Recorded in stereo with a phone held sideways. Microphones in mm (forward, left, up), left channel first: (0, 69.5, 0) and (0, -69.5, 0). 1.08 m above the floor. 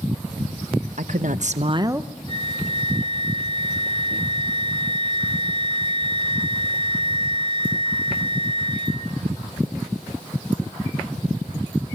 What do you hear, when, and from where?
1.0 s a woman speaking: 65° right (ahead or behind), 1.2 m; by 2.1 s 10° right (ahead or behind), 0.9 m
2.3 s a flute: 40° right (ahead or behind), 3.5 m